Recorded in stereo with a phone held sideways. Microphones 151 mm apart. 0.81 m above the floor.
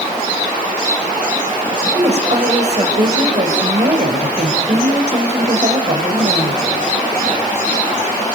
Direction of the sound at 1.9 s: 45° right (ahead or behind).